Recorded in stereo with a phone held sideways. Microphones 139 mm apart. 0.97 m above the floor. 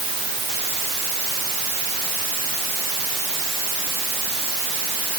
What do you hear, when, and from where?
Only background noise.